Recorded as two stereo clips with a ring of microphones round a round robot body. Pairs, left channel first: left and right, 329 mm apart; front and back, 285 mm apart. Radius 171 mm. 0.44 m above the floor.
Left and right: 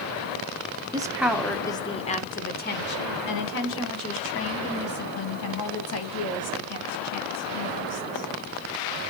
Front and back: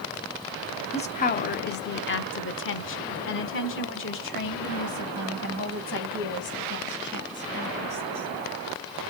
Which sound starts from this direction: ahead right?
A woman speaking, at 0.9 s.